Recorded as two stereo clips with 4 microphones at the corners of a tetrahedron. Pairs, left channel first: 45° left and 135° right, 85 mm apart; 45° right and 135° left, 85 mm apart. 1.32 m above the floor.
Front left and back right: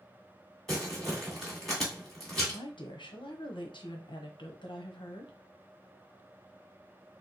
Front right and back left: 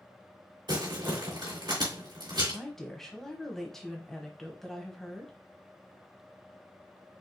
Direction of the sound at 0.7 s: 130° left.